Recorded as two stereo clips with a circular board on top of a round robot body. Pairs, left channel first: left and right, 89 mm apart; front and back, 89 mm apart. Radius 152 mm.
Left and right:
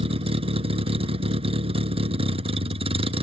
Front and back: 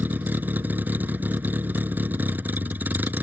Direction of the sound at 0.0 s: 105° right.